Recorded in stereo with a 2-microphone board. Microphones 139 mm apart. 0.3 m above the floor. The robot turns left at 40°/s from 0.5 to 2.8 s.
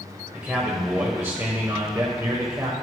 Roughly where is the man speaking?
Centre.